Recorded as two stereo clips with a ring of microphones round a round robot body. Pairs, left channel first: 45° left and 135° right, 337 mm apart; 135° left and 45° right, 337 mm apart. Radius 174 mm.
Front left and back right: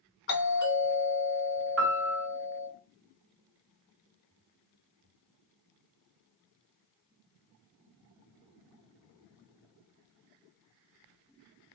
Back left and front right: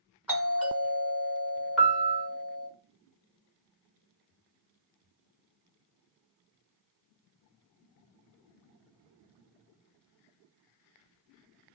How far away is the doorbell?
About 1.4 m.